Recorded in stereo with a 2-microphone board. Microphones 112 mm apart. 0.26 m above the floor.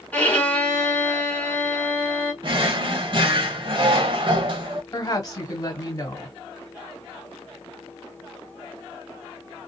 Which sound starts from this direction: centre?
A violin, at 0.1 s.